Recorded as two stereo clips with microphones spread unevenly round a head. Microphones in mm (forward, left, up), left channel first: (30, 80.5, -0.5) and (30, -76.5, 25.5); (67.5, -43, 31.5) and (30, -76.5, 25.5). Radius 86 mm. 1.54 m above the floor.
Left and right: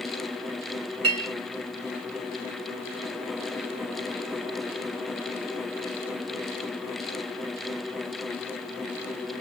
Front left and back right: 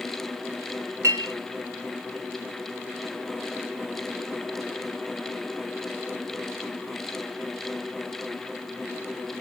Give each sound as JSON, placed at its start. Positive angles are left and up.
{"t": 1.0, "sound": "a clink", "azimuth_deg": -135, "distance_m": 0.9}